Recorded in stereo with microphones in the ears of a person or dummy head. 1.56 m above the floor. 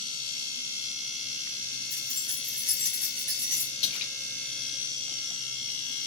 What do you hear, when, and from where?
1.9 s keys jangling: 10° left (ahead or behind), 1.4 m; by 3.7 s 25° right (ahead or behind), 1.0 m
3.8 s a splash: 30° left (ahead or behind), 0.7 m